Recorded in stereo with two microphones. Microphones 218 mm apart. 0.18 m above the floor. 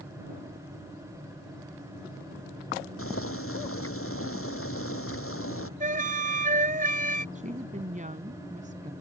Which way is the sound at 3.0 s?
80° left.